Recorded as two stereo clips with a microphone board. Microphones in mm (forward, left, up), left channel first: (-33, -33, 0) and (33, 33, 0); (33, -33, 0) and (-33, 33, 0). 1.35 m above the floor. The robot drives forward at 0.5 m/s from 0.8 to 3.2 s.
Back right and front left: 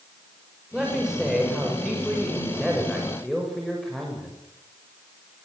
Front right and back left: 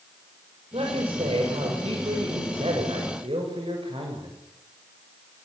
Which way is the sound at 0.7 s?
130° left.